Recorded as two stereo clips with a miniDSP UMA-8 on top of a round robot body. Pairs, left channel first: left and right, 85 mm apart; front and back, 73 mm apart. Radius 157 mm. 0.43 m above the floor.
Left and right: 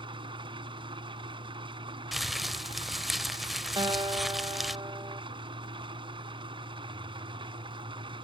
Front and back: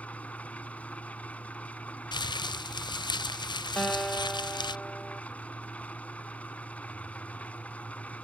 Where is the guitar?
75° right.